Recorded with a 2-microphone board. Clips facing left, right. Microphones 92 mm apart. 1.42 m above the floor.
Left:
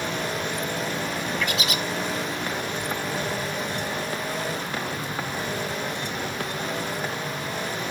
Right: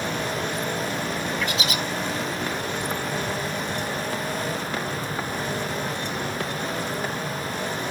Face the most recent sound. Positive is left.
turn(degrees=-30)  # may be behind; listen again after turning